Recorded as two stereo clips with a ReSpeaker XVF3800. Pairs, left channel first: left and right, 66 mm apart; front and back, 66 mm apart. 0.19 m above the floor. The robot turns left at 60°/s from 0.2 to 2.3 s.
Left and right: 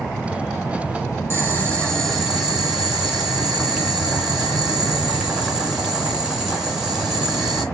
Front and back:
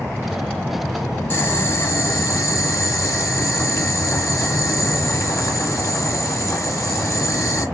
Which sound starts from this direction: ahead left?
Boiling, at 1.3 s.